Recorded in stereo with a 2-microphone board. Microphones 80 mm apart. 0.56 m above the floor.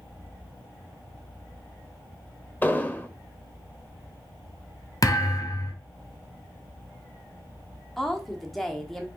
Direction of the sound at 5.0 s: 45° left (ahead or behind).